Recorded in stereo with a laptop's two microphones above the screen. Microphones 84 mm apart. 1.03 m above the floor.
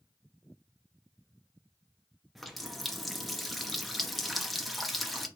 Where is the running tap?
Centre (ahead or behind), 0.8 m.